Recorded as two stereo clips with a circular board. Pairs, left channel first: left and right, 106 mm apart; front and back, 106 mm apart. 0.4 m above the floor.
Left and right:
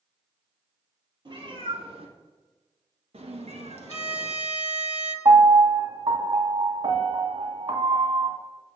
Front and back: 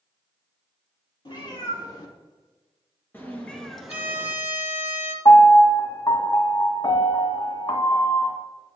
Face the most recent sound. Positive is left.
turn(degrees=-50)